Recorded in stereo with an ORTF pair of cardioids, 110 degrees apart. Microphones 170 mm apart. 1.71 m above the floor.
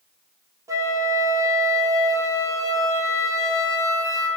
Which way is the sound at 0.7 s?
20° right.